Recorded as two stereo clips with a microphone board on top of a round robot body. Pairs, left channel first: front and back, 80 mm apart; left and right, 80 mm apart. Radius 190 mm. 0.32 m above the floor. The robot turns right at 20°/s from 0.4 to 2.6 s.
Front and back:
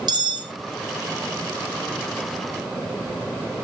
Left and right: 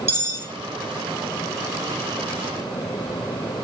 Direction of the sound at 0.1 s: 150° right.